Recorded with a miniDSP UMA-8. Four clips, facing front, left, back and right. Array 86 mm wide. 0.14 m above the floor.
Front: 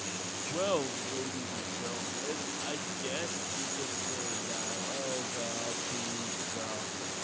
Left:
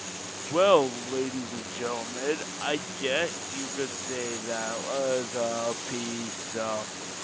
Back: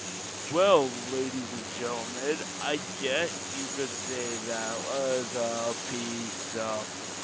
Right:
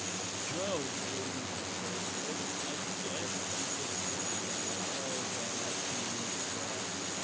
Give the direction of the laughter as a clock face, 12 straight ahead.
8 o'clock.